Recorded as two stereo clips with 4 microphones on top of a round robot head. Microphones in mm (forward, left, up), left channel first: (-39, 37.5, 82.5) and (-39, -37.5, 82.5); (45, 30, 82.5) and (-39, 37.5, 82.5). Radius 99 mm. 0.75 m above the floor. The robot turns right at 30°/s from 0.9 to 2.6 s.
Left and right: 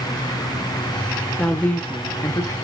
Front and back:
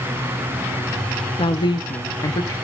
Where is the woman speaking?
10° left, 1.0 m; by 2.5 s 45° left, 1.0 m.